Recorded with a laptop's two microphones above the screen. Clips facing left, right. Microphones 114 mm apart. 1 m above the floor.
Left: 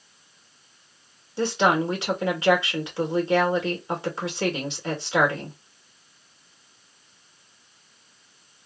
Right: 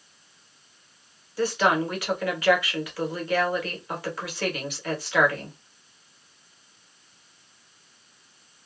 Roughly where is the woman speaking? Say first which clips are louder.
Left 1 dB; left.